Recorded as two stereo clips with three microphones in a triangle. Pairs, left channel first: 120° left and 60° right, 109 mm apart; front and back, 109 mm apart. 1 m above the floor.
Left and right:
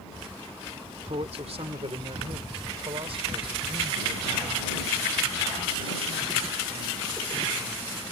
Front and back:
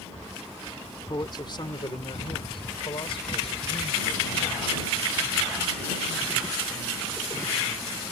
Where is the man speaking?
50° right; by 8.0 s 20° right.